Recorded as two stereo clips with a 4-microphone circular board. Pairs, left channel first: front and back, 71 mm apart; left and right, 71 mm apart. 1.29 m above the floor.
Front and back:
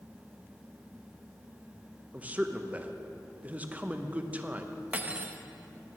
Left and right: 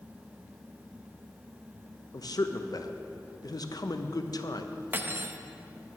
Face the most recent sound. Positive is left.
turn(degrees=-130)